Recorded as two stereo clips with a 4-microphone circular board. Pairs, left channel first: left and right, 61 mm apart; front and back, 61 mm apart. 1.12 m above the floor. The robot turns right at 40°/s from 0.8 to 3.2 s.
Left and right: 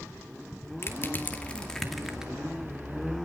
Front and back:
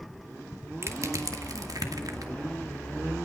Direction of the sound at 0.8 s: 135° left.